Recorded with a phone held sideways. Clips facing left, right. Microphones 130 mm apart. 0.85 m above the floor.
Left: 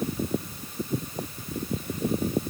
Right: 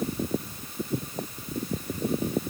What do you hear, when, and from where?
Only background noise.